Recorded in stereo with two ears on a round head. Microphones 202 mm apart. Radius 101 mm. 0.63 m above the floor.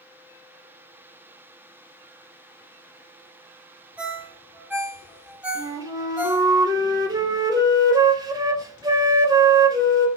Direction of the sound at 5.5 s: 15° right (ahead or behind).